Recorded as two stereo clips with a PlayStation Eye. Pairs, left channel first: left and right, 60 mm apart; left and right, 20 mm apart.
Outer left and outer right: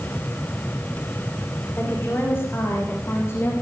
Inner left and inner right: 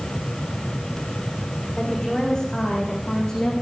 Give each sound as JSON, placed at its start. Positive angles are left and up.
{"t": 1.8, "sound": "a woman speaking", "side_deg": 45, "distance_m": 8.5}